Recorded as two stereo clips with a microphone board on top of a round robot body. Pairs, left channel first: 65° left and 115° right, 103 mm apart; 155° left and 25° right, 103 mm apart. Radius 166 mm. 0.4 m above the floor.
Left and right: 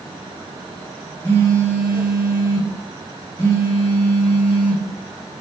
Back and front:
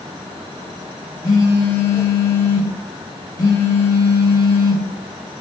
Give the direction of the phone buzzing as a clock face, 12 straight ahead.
8 o'clock.